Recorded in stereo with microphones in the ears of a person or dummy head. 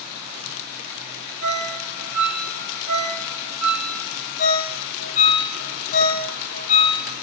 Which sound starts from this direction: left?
A ringtone, at 4.4 s.